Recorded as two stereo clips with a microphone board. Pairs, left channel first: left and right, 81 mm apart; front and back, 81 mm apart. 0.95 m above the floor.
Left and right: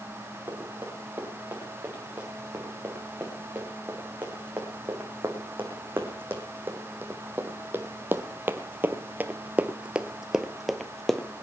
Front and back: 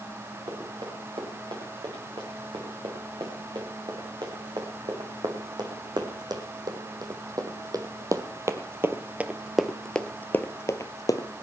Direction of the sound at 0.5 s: 155° right.